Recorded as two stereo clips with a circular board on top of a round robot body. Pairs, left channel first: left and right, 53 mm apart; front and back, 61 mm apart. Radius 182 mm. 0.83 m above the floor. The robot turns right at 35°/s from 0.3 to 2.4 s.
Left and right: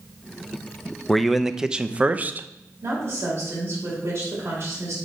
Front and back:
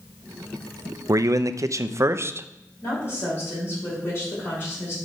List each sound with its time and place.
1.1 s a man speaking: 175° left, 0.7 m; by 2.5 s 140° right, 0.7 m
2.8 s a woman speaking: 55° right, 5 m